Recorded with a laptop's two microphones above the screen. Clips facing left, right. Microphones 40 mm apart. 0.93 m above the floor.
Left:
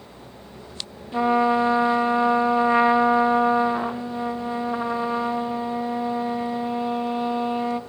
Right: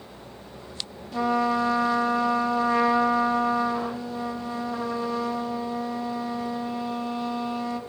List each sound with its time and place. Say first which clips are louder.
1.1 s a trumpet: left 4 dB; 25° left (ahead or behind), 1.0 m